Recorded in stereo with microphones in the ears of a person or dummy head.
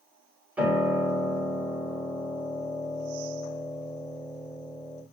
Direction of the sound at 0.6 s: 5° right (ahead or behind).